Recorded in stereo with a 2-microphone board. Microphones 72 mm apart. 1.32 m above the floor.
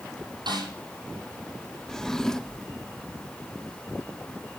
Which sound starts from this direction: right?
A snare drum, at 0.5 s.